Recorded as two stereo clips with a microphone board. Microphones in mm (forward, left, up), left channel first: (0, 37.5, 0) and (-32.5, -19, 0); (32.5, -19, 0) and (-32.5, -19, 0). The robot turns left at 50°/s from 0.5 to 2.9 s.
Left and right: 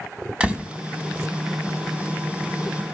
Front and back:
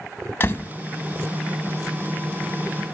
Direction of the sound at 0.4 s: 50° right.